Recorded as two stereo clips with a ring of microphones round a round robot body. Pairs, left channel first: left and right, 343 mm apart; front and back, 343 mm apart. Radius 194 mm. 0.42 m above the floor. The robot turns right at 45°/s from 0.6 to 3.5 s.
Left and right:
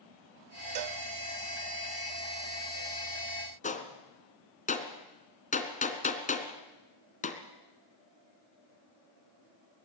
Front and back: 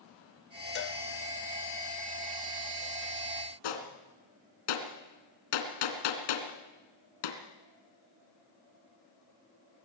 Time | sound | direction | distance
0.8 | a cowbell | 60° right | 0.5 m
3.6 | a gunshot | 20° left | 2.5 m